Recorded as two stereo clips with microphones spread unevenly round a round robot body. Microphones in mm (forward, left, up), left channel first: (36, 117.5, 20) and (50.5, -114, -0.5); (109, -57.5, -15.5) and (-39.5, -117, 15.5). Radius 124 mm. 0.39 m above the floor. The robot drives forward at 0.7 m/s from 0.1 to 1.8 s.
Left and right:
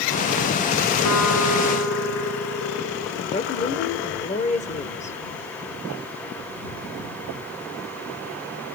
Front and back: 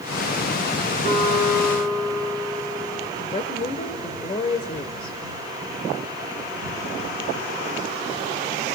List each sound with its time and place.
1.1 s a guitar: 85° left, 4 m; by 3.1 s 90° left, 4 m
3.2 s a woman speaking: 45° left, 1.2 m